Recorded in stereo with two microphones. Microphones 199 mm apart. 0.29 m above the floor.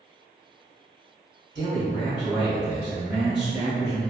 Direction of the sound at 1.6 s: 50° right (ahead or behind).